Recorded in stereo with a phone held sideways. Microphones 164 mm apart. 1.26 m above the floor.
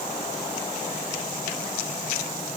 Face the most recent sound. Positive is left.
No sound to turn to.